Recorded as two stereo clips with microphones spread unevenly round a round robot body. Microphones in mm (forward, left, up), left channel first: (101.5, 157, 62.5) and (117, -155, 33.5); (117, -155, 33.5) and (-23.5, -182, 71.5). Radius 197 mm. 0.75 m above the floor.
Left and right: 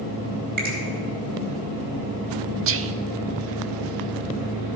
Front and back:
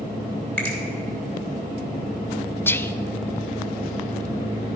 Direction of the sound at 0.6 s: 70° right.